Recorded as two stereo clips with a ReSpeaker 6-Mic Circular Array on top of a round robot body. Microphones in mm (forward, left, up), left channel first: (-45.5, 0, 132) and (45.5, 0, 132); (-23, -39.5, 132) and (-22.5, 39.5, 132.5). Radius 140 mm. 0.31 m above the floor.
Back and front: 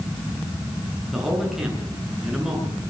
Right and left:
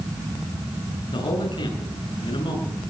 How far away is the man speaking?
About 7 m.